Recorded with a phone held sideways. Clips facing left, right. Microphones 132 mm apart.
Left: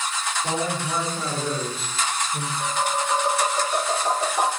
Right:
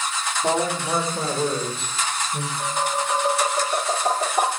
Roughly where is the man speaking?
Right.